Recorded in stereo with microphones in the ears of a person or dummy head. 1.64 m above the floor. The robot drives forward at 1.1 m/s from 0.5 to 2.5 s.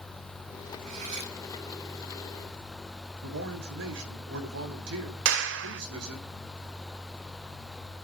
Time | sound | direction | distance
0.9 | cutlery clinking | 40° right (ahead or behind) | 1.4 m
3.2 | a man speaking | 70° right (ahead or behind) | 3 m
5.2 | a clap | 80° right | 1.2 m